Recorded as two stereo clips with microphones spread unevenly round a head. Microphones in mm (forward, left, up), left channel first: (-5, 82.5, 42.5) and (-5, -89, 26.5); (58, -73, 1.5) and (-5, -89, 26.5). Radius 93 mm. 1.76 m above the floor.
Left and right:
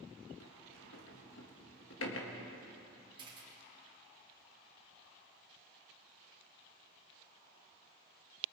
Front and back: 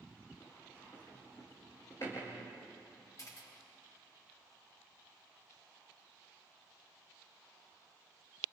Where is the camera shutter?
25° right, 4.5 m.